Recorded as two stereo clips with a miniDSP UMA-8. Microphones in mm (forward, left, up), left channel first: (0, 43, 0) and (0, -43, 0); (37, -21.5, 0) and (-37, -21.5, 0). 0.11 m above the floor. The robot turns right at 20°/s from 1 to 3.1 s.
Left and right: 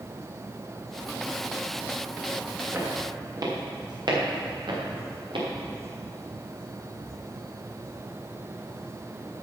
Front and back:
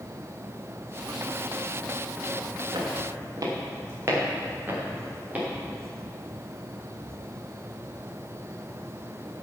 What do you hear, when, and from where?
2.7 s footsteps: 150° right, 4.5 m; by 5.5 s 105° right, 6 m